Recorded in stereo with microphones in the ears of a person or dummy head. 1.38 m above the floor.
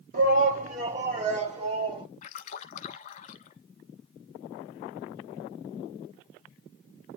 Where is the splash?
40° left (ahead or behind), 1.3 m.